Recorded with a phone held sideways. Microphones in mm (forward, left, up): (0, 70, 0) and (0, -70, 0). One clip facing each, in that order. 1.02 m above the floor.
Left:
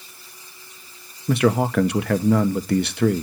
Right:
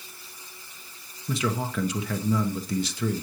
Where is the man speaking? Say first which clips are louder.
Left 10 dB; 65° left (ahead or behind), 1.0 m.